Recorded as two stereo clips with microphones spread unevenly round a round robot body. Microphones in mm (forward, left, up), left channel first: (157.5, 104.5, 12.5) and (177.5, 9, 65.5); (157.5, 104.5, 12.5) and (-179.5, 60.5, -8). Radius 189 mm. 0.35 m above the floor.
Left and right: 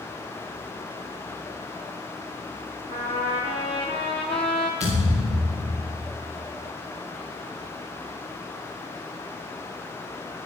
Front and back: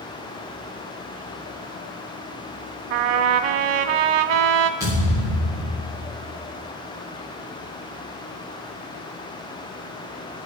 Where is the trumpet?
150° right, 0.6 m.